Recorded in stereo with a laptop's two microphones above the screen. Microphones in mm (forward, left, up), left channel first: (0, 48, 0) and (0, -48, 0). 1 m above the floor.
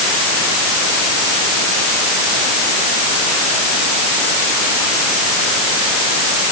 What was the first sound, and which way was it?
Only background noise.